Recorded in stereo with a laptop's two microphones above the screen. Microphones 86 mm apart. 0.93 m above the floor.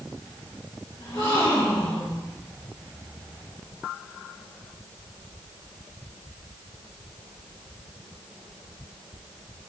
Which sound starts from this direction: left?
A gasp, at 1.0 s.